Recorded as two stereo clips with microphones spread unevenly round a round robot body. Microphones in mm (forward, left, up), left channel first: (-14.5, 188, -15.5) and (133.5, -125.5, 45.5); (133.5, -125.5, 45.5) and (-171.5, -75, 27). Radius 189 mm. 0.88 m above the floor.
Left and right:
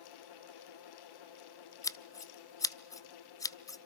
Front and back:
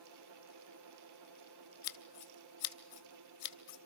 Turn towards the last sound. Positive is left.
turn(degrees=30)